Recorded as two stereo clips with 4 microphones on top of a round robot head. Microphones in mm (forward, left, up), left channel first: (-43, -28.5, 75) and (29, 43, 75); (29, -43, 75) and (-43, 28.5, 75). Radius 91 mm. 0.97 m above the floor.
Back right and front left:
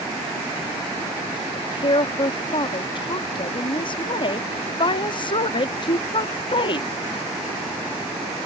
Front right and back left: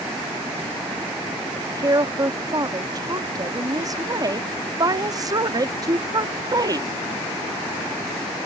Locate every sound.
1.6 s a woman speaking: 175° right